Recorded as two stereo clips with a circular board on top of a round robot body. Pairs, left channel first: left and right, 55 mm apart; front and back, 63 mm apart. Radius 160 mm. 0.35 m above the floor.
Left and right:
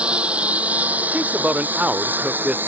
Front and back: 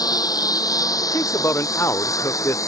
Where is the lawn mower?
20° right; by 2.7 s 35° right.